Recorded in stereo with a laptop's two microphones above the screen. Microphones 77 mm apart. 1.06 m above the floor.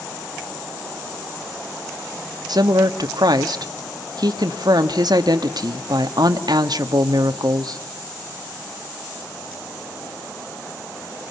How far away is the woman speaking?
About 1.5 m.